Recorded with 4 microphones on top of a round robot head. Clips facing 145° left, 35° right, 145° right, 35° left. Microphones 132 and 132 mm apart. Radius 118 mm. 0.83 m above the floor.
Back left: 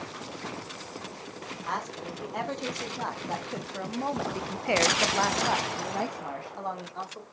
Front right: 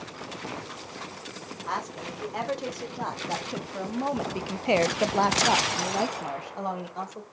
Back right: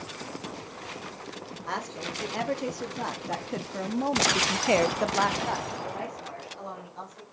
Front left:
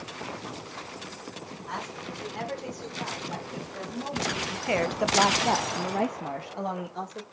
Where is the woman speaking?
125° right, 3 m; by 7.2 s 40° left, 1.9 m.